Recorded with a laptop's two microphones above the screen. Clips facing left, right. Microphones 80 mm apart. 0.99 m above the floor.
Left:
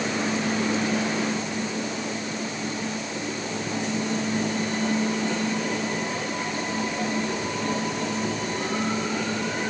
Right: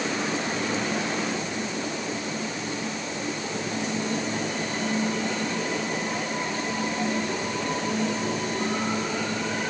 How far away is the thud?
No thud in this recording.